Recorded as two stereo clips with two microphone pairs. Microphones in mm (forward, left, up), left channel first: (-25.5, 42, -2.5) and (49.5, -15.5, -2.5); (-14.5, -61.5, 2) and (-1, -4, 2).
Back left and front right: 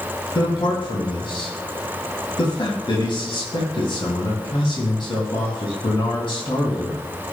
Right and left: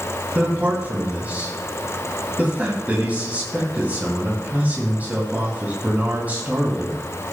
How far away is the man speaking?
About 2 m.